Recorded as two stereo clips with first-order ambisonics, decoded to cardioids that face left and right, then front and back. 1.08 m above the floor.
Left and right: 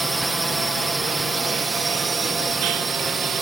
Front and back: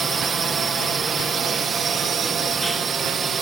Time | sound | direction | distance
0.0 | a drone | 160° right | ?